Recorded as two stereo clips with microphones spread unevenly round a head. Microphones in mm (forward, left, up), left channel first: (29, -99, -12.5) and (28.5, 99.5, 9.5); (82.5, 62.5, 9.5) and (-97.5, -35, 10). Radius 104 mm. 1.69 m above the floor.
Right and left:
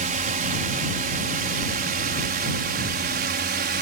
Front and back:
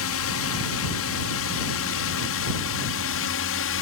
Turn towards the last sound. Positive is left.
turn(degrees=50)